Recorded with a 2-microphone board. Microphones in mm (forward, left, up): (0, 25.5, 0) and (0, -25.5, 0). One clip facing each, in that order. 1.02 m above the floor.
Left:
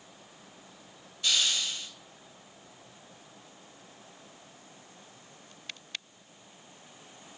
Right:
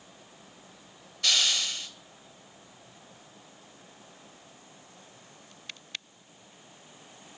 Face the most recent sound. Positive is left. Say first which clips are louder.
# right 2 dB
turn(degrees=-80)